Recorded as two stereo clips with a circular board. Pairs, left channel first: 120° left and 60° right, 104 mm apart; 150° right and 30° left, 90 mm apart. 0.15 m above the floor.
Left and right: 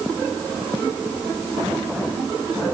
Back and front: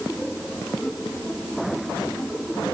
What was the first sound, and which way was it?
Only background noise.